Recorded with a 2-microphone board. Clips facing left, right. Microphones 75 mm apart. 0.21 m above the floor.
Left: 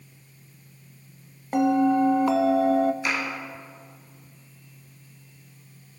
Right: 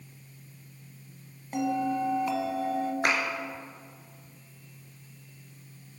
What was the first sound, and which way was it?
A bell, 55° left (ahead or behind).